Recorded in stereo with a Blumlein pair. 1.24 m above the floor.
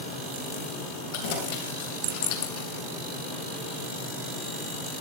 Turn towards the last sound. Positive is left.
turn(degrees=45)